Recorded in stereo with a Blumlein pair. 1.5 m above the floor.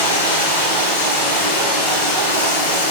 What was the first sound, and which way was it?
Running water, 55° left.